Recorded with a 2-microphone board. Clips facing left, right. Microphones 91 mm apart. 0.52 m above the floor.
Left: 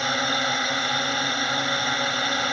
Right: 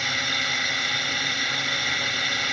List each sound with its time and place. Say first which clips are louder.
0.0 s a drone: left 5 dB; 35° left (ahead or behind)